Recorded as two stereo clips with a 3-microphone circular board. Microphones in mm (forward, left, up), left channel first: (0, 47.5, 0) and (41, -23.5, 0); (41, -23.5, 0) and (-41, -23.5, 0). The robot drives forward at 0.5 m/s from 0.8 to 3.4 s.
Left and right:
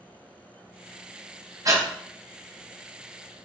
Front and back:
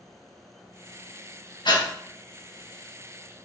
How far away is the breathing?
About 0.9 m.